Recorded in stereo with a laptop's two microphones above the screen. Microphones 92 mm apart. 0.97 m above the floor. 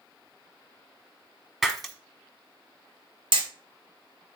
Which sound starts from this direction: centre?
Breaking glass, at 1.6 s.